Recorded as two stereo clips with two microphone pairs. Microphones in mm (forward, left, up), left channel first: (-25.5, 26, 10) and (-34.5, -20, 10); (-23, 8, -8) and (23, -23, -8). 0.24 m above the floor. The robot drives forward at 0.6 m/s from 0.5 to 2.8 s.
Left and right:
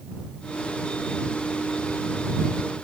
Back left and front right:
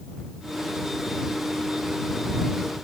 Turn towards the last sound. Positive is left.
No sound to turn to.